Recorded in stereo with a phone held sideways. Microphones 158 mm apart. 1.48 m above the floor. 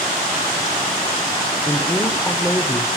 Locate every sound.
1.7 s a woman speaking: 20° left (ahead or behind), 1.1 m